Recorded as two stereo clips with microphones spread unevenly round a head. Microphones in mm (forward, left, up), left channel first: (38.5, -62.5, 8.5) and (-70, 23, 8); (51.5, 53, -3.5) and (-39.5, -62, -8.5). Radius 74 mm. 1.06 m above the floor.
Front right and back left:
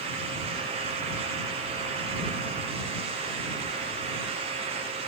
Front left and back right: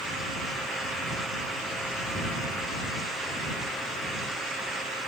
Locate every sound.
Only background noise.